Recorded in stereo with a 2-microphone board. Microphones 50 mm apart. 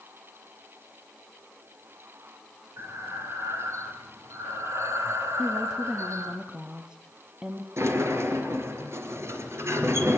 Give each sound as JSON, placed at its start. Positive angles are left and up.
{"t": 2.8, "sound": "breathing", "side_deg": -70, "distance_m": 1.9}
{"t": 5.4, "sound": "a woman speaking", "side_deg": -15, "distance_m": 1.4}
{"t": 7.8, "sound": "a sliding door", "side_deg": -60, "distance_m": 3.0}